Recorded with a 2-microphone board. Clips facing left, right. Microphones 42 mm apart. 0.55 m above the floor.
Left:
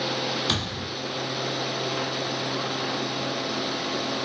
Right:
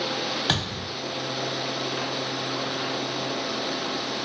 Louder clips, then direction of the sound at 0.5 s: Right 1 dB; 40° right (ahead or behind).